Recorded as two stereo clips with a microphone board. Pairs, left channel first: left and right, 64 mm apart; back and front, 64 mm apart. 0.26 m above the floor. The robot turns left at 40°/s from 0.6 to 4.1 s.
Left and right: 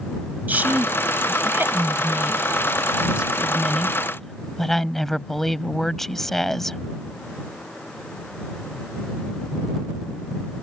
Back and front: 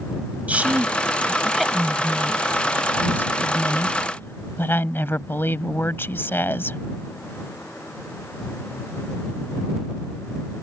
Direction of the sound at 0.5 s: 50° right.